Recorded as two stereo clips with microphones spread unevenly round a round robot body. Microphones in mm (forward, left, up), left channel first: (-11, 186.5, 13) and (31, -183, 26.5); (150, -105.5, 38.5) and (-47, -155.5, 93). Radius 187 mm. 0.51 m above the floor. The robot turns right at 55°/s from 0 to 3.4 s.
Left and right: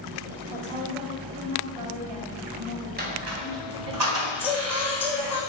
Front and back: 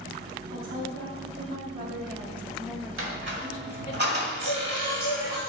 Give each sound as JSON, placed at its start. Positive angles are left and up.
{"t": 0.5, "sound": "a woman speaking", "azimuth_deg": 160, "distance_m": 2.5}
{"t": 3.0, "sound": "a squeak", "azimuth_deg": -150, "distance_m": 3.0}
{"t": 4.4, "sound": "singing", "azimuth_deg": 180, "distance_m": 4.0}